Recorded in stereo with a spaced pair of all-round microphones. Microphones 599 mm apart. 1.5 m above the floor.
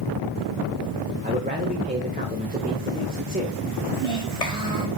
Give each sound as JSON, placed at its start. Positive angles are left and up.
{"t": 1.2, "sound": "a man speaking", "side_deg": -15, "distance_m": 1.9}
{"t": 3.9, "sound": "a child speaking", "side_deg": 70, "distance_m": 3.5}